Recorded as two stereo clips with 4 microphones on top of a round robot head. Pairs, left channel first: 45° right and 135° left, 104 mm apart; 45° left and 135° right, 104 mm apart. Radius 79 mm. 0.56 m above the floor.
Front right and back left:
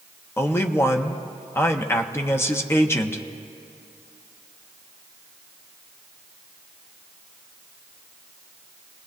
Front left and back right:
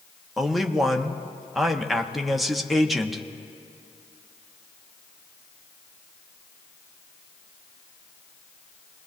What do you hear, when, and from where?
0.4 s a man speaking: 45° right, 1.0 m